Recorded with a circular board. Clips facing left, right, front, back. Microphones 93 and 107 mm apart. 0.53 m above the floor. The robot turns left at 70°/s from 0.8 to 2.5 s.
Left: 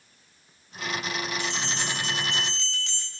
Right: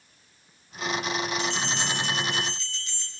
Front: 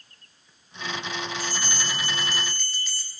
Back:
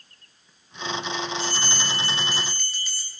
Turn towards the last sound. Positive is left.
turn(degrees=90)